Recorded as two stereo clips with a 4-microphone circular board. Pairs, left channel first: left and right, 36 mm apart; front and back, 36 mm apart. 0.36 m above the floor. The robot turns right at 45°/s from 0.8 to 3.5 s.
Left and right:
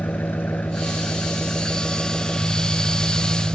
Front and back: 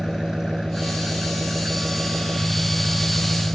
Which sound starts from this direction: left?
An engine running, at 0.0 s.